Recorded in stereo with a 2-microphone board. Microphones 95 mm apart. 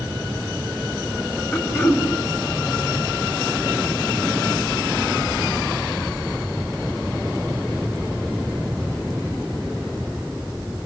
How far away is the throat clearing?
About 1.9 m.